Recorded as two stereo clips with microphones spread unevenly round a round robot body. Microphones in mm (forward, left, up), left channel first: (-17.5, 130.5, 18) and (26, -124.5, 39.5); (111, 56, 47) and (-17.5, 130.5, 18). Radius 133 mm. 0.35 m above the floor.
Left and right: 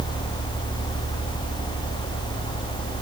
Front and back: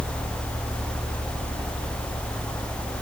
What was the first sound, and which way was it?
Only background noise.